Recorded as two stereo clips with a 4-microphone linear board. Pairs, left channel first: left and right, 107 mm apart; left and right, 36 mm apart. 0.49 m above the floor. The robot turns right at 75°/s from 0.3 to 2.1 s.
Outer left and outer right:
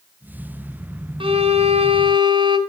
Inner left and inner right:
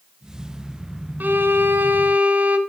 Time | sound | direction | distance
1.2 | a violin | 120° right | 0.7 m